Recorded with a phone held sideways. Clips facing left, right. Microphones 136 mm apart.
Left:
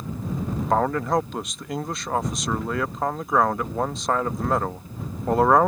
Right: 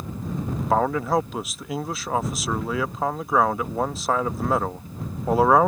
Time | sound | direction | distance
0.7 | a man speaking | 5° right (ahead or behind) | ?